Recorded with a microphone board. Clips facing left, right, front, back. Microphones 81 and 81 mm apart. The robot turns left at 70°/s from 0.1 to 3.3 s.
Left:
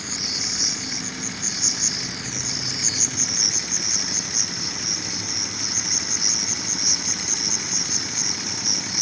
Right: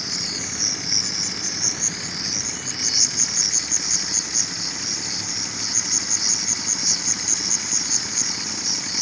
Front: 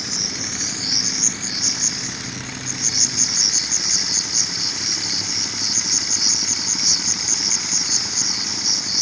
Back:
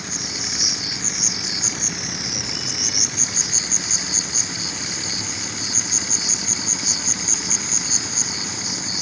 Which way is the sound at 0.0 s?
15° right.